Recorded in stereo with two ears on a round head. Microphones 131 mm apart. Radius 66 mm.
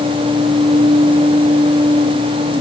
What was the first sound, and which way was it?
Only background noise.